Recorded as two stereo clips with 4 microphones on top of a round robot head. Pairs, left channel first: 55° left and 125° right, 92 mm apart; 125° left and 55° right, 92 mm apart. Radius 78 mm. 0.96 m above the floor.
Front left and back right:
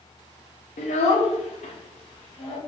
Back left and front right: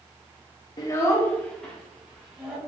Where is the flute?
No flute in this recording.